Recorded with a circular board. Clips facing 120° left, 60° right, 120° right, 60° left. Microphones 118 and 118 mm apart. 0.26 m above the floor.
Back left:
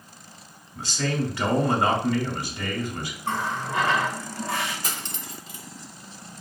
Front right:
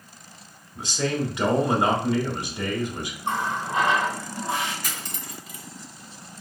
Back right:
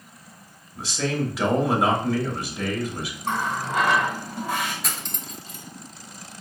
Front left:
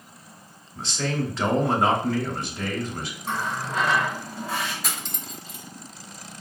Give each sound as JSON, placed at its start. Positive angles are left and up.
{"t": 0.8, "sound": "a man speaking", "azimuth_deg": -55, "distance_m": 1.1}
{"t": 3.2, "sound": "a running tap", "azimuth_deg": -120, "distance_m": 1.6}
{"t": 4.8, "sound": "cutlery clinking", "azimuth_deg": 145, "distance_m": 0.6}